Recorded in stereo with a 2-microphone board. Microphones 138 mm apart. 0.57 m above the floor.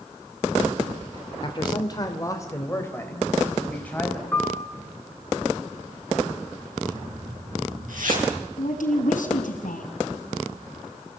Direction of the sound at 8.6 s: 80° left.